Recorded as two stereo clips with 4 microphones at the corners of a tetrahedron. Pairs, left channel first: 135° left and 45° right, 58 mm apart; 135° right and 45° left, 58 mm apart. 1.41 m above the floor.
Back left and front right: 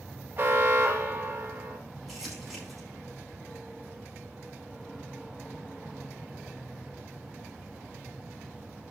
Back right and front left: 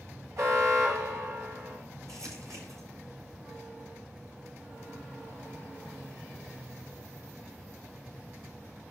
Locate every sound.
0.4 s an alarm: 10° left, 2.5 m
2.1 s crumpling: 40° left, 5.5 m